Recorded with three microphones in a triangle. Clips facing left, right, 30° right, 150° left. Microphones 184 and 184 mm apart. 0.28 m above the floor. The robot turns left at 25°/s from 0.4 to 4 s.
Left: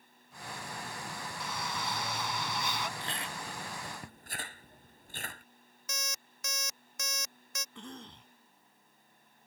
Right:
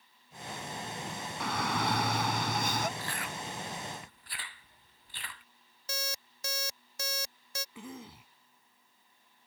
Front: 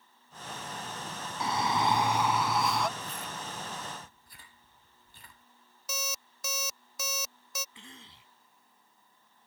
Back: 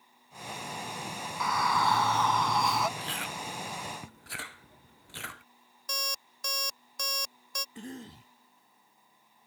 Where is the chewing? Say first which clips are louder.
Right 1 dB, back 2 dB; 160° left; by 5.4 s 135° left.